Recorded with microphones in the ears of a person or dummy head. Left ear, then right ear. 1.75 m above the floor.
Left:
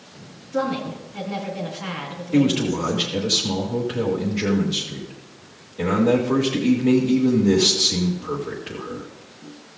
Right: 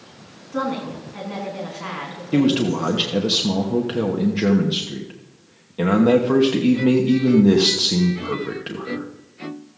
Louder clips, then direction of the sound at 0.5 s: Left 1 dB; 10° right (ahead or behind).